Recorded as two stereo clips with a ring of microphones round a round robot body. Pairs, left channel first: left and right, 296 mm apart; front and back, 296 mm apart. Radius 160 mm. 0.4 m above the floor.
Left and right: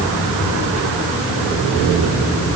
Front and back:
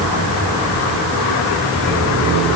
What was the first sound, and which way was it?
Only background noise.